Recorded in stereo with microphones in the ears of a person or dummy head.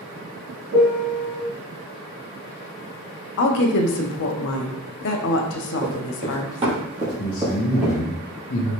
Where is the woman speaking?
60° left (ahead or behind), 0.7 m.